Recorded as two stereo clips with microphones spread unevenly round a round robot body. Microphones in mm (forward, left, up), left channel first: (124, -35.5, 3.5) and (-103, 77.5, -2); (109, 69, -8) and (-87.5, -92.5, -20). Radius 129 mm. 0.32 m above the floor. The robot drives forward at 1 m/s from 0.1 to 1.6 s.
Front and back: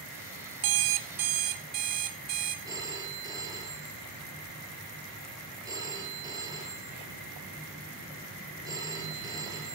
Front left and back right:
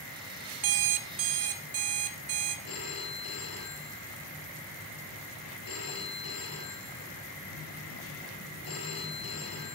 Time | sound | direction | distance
0.6 | an alarm clock | 175° right | 0.9 m
2.6 | a phone ringing | 80° left | 3.5 m